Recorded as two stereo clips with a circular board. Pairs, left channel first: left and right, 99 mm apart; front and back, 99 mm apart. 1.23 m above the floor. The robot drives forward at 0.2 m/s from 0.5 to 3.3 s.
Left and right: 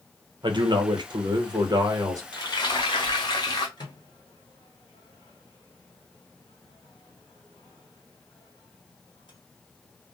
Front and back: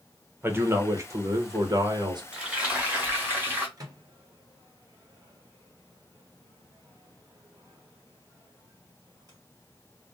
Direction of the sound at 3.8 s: 130° left.